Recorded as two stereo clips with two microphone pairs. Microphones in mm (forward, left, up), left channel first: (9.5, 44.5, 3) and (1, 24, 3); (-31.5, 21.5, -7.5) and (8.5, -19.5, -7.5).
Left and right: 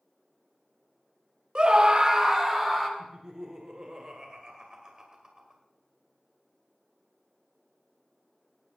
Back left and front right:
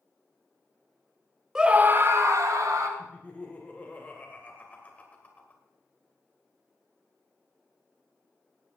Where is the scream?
115° right, 1.1 m; by 2.9 s 35° right, 2 m.